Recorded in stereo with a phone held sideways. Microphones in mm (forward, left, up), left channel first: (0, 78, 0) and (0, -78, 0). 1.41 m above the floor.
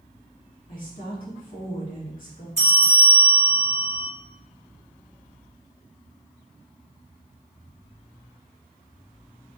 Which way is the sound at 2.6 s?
45° right (ahead or behind).